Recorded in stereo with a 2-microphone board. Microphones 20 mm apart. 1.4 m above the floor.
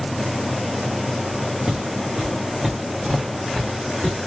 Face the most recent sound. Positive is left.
turn(degrees=-65)  # may be behind; listen again after turning